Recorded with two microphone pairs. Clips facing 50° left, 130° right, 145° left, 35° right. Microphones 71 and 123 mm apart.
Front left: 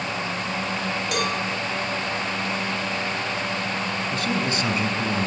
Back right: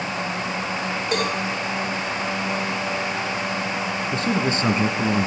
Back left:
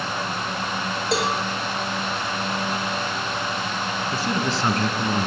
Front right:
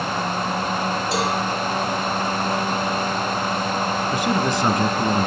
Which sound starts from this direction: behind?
A cowbell, at 1.1 s.